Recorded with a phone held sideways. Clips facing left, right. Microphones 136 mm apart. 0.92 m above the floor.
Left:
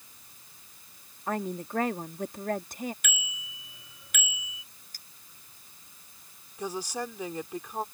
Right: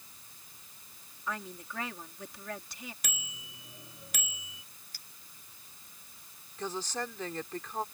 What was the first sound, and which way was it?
A woman speaking, 50° left (ahead or behind).